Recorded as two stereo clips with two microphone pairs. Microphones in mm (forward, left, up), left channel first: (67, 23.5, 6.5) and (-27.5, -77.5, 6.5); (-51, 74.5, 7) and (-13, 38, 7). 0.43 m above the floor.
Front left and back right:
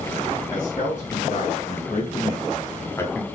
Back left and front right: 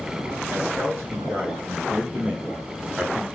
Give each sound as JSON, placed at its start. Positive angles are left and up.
{"t": 0.5, "sound": "a man speaking", "azimuth_deg": 25, "distance_m": 4.0}